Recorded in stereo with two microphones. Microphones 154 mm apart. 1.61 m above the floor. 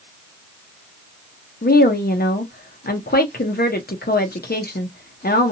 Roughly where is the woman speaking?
Left.